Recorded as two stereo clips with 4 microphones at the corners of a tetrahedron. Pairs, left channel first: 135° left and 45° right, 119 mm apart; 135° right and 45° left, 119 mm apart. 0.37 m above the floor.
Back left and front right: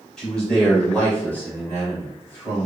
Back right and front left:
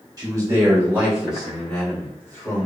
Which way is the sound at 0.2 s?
55° left.